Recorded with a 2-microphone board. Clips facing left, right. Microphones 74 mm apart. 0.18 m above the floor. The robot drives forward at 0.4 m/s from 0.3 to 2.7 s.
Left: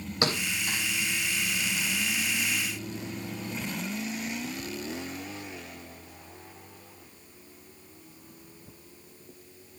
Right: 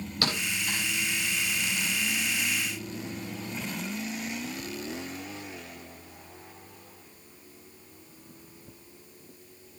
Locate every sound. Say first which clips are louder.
0.2 s a thud: left 2 dB; 25° left (ahead or behind), 9 m